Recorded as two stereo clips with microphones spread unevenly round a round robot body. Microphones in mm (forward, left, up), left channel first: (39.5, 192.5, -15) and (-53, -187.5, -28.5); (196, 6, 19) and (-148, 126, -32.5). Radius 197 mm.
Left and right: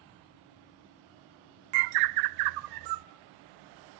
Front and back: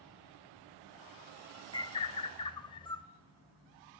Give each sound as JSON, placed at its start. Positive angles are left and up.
{"t": 1.7, "sound": "a bird", "azimuth_deg": -100, "distance_m": 0.6}